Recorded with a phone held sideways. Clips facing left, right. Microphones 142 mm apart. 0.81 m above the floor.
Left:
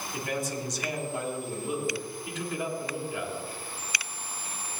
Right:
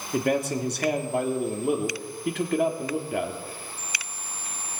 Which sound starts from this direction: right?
A man speaking, at 0.1 s.